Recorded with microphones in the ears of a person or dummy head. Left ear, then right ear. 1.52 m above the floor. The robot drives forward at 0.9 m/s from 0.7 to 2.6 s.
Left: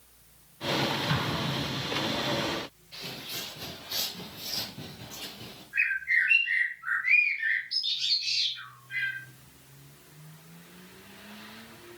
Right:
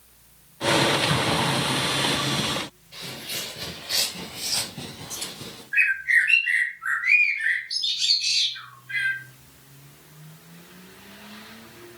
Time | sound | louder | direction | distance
1.1 | an explosion | right 8 dB | 5° left (ahead or behind) | 3 m
2.9 | footsteps | right 4 dB | centre (ahead or behind) | 1.7 m
5.7 | a bird | right 6 dB | 70° right (ahead or behind) | 3 m